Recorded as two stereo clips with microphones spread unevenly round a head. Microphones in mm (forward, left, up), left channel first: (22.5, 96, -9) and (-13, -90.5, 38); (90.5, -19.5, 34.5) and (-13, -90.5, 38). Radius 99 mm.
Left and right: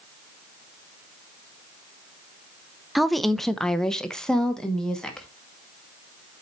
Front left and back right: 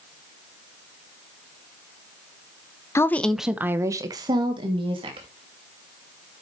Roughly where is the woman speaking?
Ahead left.